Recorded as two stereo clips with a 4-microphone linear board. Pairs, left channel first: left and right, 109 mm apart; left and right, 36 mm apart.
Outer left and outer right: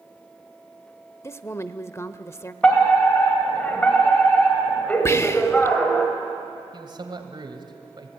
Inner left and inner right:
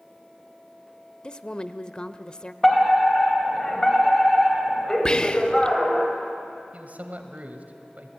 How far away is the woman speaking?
About 0.8 m.